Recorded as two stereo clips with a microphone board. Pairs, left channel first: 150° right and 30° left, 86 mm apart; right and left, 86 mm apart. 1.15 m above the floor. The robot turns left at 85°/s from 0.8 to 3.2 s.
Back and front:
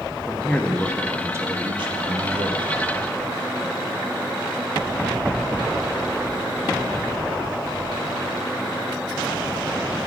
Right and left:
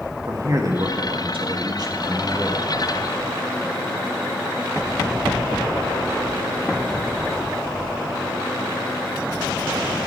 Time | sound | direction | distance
0.3 | a man speaking | 135° left | 1.9 m